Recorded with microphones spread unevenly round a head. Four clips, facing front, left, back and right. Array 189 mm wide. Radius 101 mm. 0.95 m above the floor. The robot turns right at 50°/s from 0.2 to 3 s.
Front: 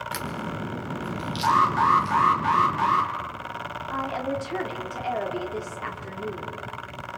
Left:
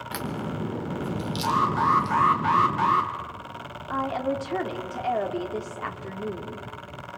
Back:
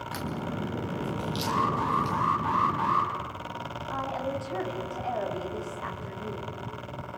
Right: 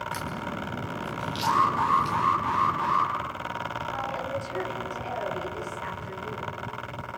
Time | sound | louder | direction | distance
0.1 | a crack | left 1 dB, back 1 dB | 80° left | 1.4 m
1.4 | an alarm | even, front 8 dB | straight ahead | 3.5 m
3.9 | a woman speaking | left 8 dB, front 3 dB | 65° left | 2.5 m